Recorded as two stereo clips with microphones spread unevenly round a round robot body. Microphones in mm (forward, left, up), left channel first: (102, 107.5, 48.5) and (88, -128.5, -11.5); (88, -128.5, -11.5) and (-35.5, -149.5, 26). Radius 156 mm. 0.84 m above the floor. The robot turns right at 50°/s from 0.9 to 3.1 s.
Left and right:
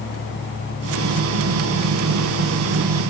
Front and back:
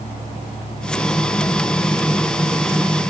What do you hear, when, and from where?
Only background noise.